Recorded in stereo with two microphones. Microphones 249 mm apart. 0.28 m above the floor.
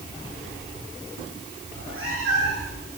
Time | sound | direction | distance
1.7 | a cat meowing | 65° right (ahead or behind) | 6.5 m